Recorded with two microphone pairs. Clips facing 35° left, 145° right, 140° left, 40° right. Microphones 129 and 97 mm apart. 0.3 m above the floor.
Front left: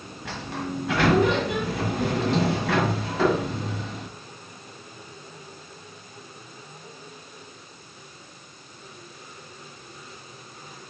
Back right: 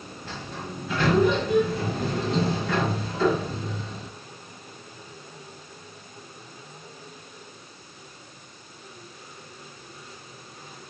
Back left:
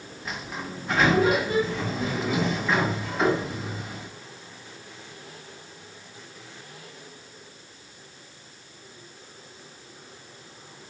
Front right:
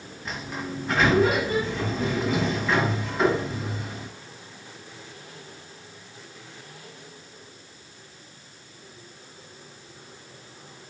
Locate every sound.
0.2 s a sliding door: 50° left, 0.8 m